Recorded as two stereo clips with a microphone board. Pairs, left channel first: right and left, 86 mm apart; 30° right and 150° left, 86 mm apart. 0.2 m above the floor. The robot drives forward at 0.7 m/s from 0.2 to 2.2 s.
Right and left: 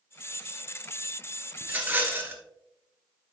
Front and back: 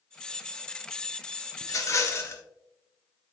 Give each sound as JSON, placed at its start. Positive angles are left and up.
{"t": 1.6, "sound": "a rattle", "azimuth_deg": 20, "distance_m": 1.8}